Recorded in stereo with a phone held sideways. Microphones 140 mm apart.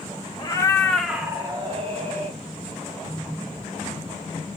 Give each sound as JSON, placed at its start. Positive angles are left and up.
{"t": 0.4, "sound": "a cat meowing", "side_deg": 35, "distance_m": 0.8}